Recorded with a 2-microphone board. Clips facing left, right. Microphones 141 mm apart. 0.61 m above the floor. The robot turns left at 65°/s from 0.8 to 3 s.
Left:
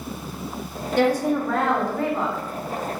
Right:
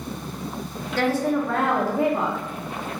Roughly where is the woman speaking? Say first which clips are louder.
Left 2 dB; centre.